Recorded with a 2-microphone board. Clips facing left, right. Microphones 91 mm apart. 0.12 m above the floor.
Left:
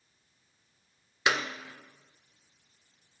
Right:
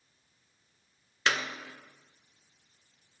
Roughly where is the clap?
Centre.